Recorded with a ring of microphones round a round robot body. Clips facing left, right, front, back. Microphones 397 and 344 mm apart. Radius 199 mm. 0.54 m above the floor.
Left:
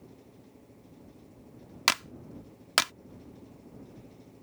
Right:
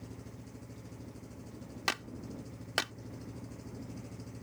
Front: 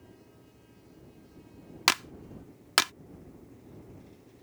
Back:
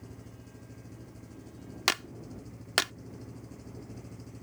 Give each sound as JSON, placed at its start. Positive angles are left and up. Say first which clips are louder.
{"t": 0.0, "sound": "an engine running", "louder": "right 4 dB, back 5 dB", "azimuth_deg": -135}
{"t": 1.9, "sound": "a clap", "louder": "left 2 dB, front 1 dB", "azimuth_deg": 60}